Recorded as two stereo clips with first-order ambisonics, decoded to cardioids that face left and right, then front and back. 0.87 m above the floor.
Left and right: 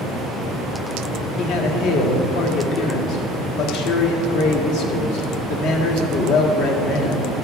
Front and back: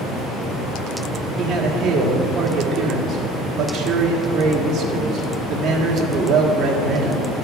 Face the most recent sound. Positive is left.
turn(degrees=115)